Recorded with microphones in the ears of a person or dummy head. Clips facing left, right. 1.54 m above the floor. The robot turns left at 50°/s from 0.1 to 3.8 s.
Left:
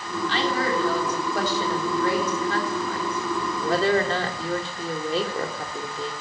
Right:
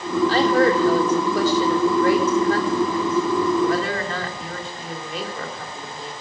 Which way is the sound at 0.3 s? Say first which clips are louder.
Right 7 dB; 35° right.